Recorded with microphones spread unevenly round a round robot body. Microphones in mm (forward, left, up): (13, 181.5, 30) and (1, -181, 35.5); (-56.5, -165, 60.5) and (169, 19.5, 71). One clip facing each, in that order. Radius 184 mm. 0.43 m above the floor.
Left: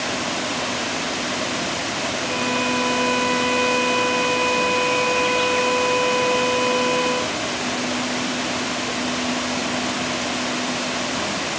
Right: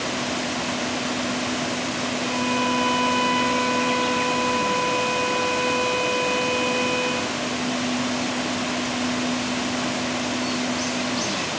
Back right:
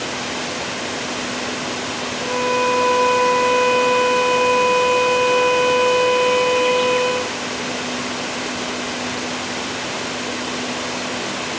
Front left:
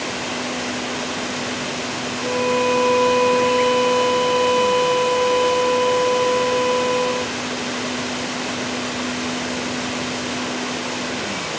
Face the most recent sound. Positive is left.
turn(degrees=-165)